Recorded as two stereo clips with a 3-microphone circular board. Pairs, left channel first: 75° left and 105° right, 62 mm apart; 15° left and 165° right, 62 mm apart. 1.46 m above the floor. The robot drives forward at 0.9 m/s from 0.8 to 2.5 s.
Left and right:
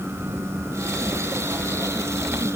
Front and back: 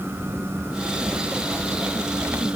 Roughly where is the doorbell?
No doorbell in this recording.